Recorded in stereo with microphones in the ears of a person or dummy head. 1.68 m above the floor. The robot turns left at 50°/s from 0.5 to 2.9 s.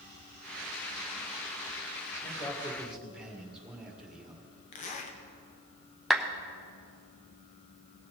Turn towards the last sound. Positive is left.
turn(degrees=0)  # may be behind; listen again after turning